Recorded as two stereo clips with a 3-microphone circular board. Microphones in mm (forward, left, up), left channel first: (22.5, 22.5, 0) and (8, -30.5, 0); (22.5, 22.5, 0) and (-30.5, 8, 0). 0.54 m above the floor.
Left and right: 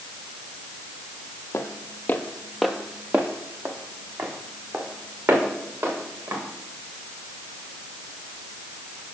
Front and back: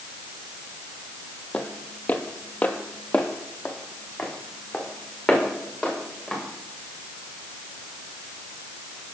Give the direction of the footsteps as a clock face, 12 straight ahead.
9 o'clock.